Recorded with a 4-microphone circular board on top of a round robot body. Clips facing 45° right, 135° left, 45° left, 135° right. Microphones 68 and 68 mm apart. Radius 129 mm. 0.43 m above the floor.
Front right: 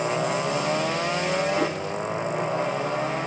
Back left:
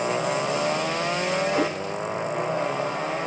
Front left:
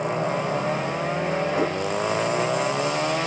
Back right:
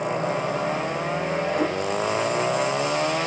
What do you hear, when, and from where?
1.5 s a cat meowing: 135° left, 2.0 m